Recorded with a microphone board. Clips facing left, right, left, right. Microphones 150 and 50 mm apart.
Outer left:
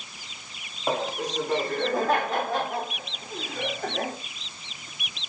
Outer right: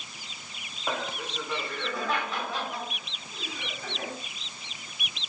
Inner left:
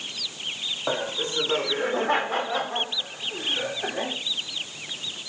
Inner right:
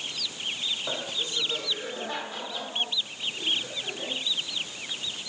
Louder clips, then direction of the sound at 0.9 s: Outer left 6 dB, inner left 5 dB; 35° left (ahead or behind).